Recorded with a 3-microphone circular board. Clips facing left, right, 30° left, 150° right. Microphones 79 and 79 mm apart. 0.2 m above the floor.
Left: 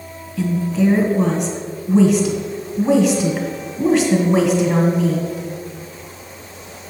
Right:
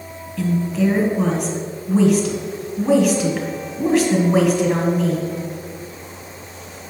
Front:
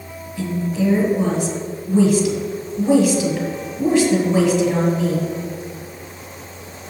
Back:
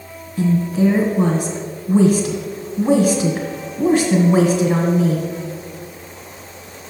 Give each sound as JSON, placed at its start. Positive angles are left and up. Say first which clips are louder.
{"t": 0.4, "sound": "a woman speaking", "louder": "left 1 dB, back 5 dB", "azimuth_deg": 180, "distance_m": 2.0}